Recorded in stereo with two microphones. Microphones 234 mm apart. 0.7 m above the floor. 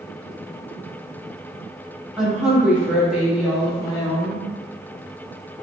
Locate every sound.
2.2 s a woman speaking: 5° right (ahead or behind), 0.9 m; by 4.4 s centre (ahead or behind), 1.4 m